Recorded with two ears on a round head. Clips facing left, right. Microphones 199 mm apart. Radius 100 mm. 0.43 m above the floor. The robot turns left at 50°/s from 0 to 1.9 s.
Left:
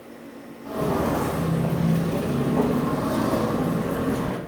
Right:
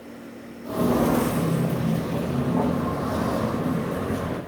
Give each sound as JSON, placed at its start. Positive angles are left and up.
{"t": 0.6, "sound": "footsteps", "side_deg": -40, "distance_m": 0.8}